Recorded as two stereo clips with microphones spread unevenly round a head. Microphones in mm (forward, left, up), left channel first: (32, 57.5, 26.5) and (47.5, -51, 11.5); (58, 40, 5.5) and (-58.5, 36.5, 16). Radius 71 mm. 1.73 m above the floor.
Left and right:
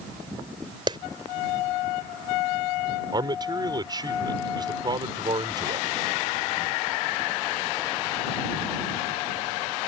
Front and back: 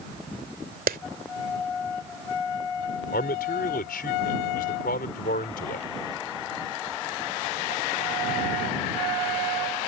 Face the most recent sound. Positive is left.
turn(degrees=-30)